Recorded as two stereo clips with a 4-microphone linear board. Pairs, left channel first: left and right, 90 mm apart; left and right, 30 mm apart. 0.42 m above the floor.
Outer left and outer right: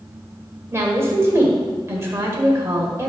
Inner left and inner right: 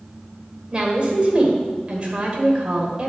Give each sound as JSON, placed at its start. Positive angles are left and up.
{"t": 0.7, "sound": "a woman speaking", "side_deg": -30, "distance_m": 1.7}